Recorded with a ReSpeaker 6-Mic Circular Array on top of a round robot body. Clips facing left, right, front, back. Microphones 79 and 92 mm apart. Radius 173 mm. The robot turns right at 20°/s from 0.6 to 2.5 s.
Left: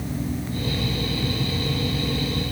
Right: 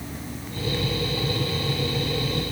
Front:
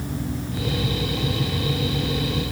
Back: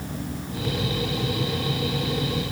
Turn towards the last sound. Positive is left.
No sound to turn to.